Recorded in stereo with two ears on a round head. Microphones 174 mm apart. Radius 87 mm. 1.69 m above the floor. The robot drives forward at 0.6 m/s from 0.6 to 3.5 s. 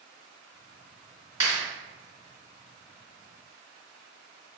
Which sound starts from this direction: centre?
A clap, at 1.4 s.